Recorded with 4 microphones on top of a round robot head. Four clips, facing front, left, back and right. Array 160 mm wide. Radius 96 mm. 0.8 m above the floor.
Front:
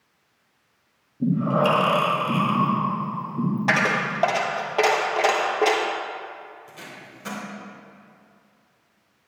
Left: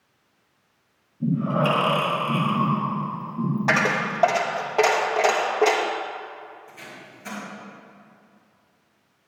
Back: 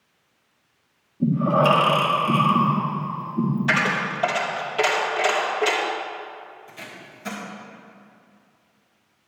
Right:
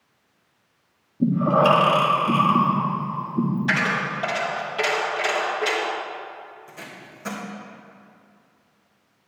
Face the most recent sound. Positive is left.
turn(degrees=-70)